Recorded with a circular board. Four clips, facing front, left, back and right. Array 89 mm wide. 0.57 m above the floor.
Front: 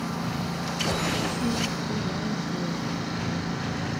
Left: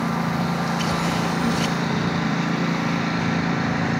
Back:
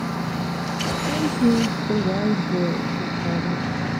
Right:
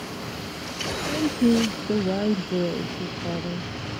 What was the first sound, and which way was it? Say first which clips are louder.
A lawn mower: left 11 dB, back 4 dB; 105° left.